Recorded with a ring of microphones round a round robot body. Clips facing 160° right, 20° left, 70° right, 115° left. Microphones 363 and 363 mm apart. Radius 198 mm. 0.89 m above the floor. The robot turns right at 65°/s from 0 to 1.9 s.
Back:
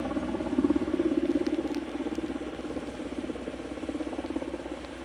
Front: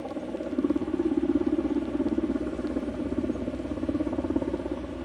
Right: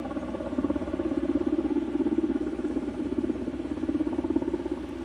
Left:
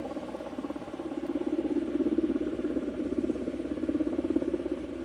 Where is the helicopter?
120° right; by 5.0 s 5° left.